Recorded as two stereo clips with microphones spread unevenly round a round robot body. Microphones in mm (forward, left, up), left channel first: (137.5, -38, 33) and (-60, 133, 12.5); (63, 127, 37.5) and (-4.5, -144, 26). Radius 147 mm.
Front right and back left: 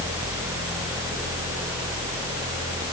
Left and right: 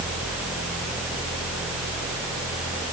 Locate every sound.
Only background noise.